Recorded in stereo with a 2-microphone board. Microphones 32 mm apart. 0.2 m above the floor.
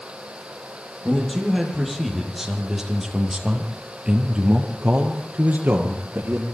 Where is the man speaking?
10° left (ahead or behind), 7.5 m; by 6.5 s 65° right (ahead or behind), 5 m.